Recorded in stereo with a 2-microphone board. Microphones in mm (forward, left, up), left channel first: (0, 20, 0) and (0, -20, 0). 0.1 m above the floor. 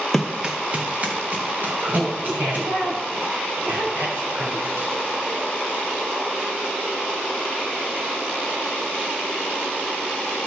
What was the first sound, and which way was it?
Running footsteps, 5° left (ahead or behind).